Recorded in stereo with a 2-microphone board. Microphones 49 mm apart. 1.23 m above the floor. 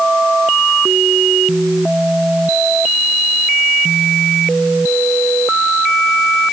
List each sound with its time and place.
Only background noise.